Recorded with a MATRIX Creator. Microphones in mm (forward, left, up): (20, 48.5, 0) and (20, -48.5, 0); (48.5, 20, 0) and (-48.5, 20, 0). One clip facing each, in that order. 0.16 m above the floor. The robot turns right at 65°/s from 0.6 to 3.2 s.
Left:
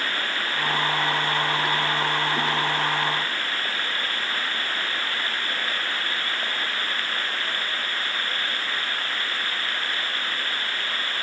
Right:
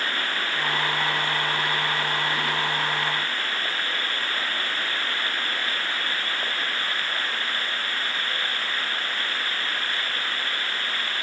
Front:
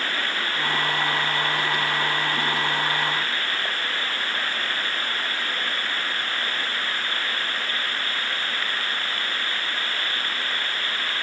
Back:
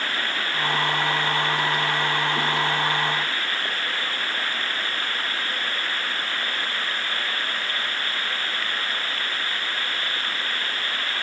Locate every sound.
Only background noise.